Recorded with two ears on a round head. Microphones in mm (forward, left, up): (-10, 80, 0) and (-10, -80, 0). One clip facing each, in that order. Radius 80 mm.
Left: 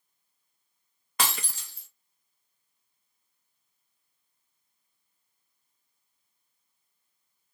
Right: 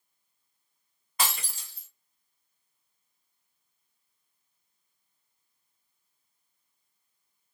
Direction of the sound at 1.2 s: 60° left (ahead or behind).